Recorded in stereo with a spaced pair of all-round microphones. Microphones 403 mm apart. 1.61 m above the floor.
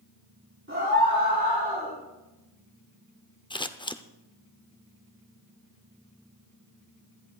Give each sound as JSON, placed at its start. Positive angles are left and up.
{"t": 0.7, "sound": "a scream", "side_deg": -30, "distance_m": 4.0}
{"t": 3.5, "sound": "scissors", "side_deg": 10, "distance_m": 0.6}